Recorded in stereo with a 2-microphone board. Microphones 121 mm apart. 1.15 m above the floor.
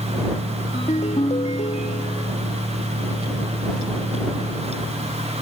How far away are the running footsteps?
I don't hear running footsteps.